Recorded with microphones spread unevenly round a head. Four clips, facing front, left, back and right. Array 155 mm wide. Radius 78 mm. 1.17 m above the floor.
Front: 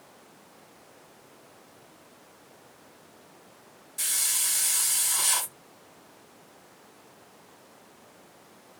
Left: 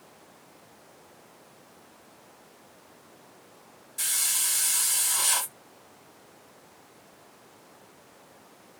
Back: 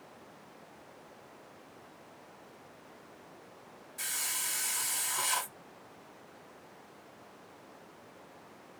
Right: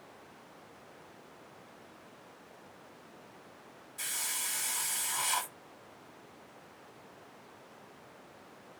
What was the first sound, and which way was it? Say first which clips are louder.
A hiss: left 4 dB, front 2 dB; 90° left.